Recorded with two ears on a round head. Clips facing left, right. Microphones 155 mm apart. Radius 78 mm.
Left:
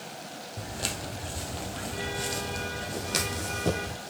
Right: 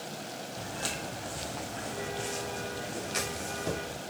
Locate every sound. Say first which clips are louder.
0.6 s footsteps: left 2 dB; 20° left (ahead or behind), 2.5 m; by 4.0 s 60° left (ahead or behind), 3 m